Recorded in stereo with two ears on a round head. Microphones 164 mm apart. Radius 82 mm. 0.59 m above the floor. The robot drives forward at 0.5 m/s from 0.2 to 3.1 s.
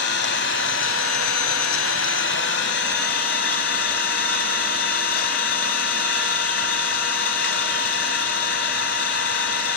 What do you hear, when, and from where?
0.0 s an engine running: 65° left (ahead or behind), 1.5 m; by 9.8 s 60° left (ahead or behind), 1.6 m